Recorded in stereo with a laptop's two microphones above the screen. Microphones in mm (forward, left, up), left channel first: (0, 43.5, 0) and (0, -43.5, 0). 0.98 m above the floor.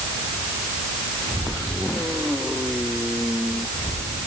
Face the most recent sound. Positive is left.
No sound to turn to.